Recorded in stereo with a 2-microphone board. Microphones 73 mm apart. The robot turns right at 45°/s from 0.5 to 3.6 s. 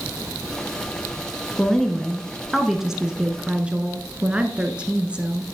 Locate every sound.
1.6 s a woman speaking: 10° left (ahead or behind), 1.1 m; by 5.5 s 15° right (ahead or behind), 1.1 m